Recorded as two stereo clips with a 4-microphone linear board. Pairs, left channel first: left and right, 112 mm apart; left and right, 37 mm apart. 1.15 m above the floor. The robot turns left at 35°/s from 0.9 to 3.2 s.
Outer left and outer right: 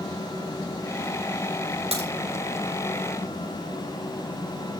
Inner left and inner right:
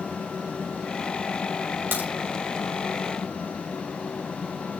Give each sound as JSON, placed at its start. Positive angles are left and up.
{"t": 1.9, "sound": "a crack", "side_deg": -80, "distance_m": 7.0}